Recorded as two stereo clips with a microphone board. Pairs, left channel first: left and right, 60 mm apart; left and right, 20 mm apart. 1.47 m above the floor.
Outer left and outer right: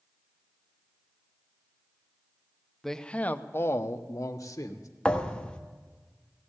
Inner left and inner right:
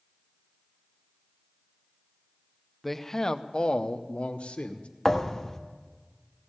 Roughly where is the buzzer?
I don't hear a buzzer.